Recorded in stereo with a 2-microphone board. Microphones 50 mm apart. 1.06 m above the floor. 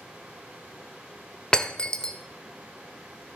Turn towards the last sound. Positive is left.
turn(degrees=20)  # may be behind; listen again after turning